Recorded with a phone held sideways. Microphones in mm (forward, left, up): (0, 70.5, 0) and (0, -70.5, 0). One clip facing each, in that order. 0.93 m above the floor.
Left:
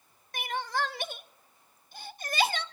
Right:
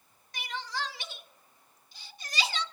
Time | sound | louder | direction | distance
0.3 | crying | left 5 dB | 50° left (ahead or behind) | 0.5 m